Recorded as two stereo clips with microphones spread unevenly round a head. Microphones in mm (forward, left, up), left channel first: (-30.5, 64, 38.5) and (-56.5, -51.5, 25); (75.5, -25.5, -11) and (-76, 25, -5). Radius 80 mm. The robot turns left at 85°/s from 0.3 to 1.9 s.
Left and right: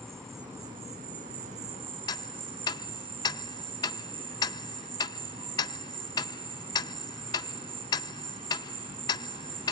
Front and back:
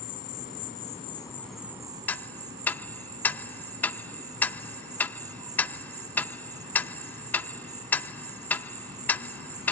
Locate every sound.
0.0 s an insect: 5° right; by 9.7 s 140° right
2.1 s ticking: 60° left